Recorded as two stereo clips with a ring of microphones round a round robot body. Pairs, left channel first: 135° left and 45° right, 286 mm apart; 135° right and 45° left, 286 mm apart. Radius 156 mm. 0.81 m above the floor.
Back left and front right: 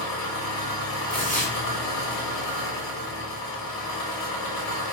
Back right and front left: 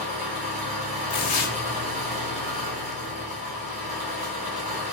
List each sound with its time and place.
0.0 s an engine running: 115° left, 1.6 m
1.1 s tearing paper: 140° right, 1.3 m